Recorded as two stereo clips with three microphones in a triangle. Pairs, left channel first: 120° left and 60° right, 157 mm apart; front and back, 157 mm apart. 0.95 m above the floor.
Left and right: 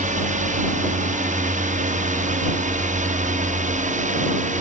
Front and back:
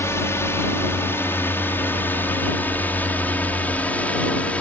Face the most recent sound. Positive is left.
turn(degrees=-80)